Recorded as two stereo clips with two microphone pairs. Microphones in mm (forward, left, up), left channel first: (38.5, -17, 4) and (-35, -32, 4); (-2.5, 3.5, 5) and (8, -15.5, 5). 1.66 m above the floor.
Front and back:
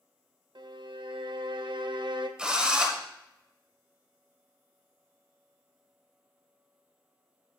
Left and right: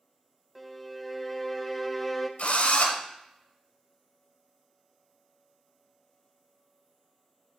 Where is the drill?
115° left, 1.2 m.